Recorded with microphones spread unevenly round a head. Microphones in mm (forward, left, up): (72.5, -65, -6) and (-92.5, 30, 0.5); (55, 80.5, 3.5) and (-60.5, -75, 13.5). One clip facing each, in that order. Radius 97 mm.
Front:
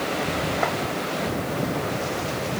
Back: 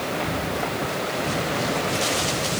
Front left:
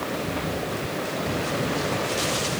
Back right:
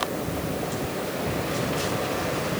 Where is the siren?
No siren in this recording.